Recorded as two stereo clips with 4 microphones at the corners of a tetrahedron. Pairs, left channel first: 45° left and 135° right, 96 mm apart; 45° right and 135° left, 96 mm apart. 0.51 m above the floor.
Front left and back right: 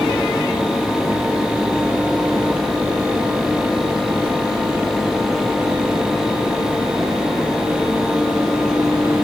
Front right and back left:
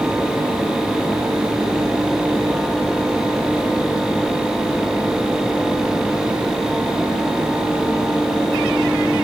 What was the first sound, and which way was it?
Only background noise.